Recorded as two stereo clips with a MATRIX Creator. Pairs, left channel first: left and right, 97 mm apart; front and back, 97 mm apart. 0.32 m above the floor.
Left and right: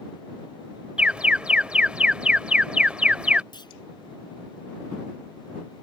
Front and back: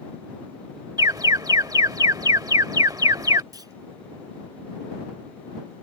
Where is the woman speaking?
No woman speaking in this recording.